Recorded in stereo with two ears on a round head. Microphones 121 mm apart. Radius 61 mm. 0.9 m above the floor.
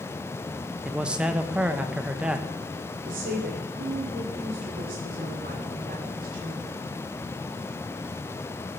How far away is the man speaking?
About 0.9 m.